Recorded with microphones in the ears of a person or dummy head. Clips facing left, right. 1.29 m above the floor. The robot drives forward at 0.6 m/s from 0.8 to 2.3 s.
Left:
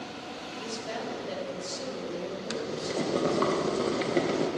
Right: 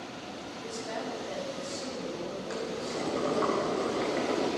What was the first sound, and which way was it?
A woman speaking, 50° left (ahead or behind).